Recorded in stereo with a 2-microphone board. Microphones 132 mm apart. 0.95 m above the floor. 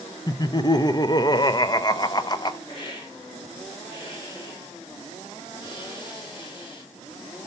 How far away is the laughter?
About 0.6 m.